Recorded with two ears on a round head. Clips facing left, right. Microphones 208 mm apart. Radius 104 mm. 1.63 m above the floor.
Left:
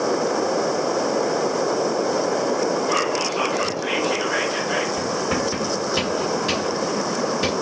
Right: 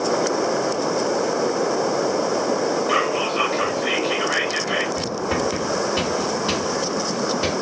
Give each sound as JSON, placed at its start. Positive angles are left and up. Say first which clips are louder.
{"t": 2.9, "sound": "whispering", "louder": "right 1 dB", "side_deg": -30, "distance_m": 0.8}
{"t": 5.0, "sound": "writing", "louder": "even", "side_deg": 20, "distance_m": 1.8}